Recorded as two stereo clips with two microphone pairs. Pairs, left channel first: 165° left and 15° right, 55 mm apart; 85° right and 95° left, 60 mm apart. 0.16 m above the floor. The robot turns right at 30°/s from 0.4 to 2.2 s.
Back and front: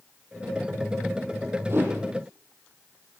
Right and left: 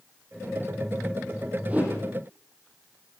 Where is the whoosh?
25° left, 7.5 m; by 1.9 s 35° left, 7.5 m.